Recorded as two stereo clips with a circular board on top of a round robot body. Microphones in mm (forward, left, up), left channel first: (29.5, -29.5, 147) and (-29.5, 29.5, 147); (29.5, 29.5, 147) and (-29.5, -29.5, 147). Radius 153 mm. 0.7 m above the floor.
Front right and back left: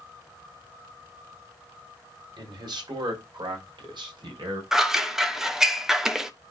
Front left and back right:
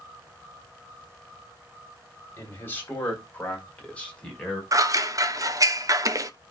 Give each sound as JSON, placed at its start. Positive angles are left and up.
{"t": 2.4, "sound": "a man speaking", "azimuth_deg": 105, "distance_m": 3.5}
{"t": 4.7, "sound": "scissors", "azimuth_deg": -140, "distance_m": 1.4}